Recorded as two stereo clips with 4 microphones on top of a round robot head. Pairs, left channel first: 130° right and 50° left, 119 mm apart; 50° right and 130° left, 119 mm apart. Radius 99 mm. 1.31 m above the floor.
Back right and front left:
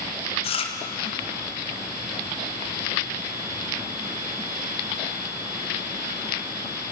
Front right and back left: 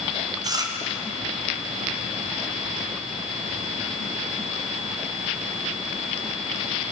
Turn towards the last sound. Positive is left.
turn(degrees=-170)